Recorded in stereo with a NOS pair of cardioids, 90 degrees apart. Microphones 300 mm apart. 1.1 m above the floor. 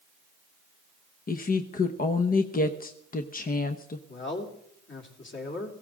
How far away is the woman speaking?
About 0.9 m.